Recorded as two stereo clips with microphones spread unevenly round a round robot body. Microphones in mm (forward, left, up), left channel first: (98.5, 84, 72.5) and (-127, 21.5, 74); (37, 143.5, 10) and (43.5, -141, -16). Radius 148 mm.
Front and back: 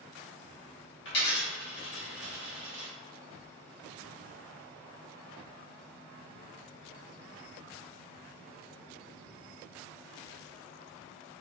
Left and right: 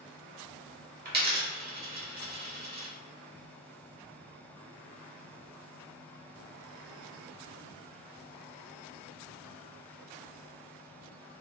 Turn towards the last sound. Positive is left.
turn(degrees=-35)